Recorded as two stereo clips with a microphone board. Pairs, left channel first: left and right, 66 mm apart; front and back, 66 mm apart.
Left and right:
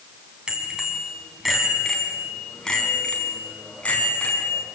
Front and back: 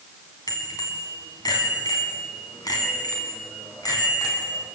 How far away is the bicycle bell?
About 3.5 m.